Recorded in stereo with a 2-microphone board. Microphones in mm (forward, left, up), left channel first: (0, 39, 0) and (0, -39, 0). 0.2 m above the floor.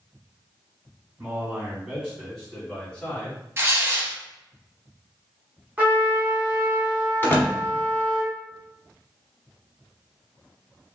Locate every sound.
1.2 s a man speaking: 25° right (ahead or behind), 1.8 m; by 3.4 s 25° left (ahead or behind), 1.1 m
3.6 s tearing paper: 35° right (ahead or behind), 0.7 m
5.8 s a trumpet: 20° right (ahead or behind), 1.5 m
7.2 s a door slam: 25° left (ahead or behind), 1.0 m